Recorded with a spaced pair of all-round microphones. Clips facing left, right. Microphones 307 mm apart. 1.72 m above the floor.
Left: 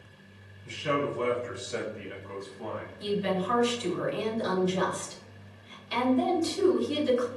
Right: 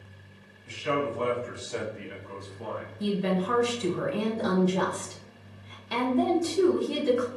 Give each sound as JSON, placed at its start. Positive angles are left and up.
{"t": 0.7, "sound": "a man speaking", "side_deg": 45, "distance_m": 0.9}
{"t": 3.0, "sound": "a woman speaking", "side_deg": -60, "distance_m": 0.7}